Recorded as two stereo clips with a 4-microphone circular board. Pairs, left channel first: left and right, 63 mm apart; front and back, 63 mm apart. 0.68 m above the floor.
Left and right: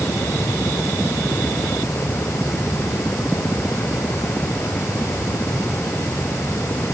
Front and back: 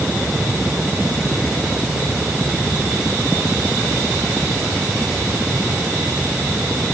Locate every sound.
Only background noise.